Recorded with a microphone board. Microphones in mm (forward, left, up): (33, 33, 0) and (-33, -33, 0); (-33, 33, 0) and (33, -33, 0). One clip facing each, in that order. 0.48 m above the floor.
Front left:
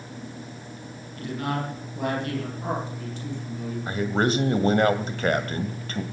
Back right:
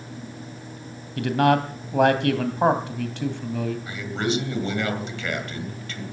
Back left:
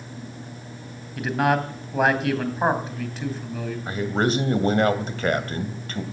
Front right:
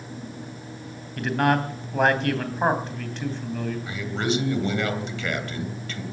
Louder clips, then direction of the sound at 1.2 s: Back right 10 dB, even; 140° right.